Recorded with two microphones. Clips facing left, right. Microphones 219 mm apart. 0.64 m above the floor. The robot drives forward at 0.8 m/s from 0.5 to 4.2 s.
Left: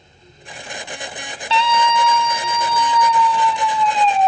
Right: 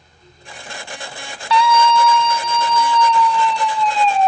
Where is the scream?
25° left (ahead or behind), 0.6 m; by 4.3 s 5° left (ahead or behind), 2.5 m.